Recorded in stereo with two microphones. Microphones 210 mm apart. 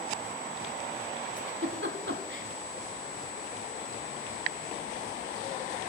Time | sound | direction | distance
1.4 | a giggle | 65° right (ahead or behind) | 1.2 m